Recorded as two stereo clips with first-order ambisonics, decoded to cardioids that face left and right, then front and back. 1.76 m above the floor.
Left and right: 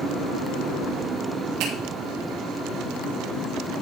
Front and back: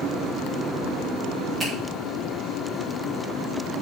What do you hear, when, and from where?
1.6 s a finger snap: 95° right, 4.5 m